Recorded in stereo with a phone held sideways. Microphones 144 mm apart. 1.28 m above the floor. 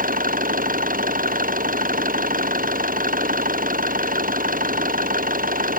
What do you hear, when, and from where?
0.0 s an engine running: 75° right (ahead or behind)